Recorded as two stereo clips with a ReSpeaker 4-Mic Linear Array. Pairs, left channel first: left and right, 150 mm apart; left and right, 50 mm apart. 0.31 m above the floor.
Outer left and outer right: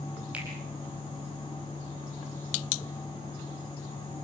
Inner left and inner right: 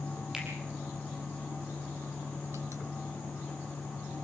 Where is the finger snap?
10° right (ahead or behind), 7.5 m.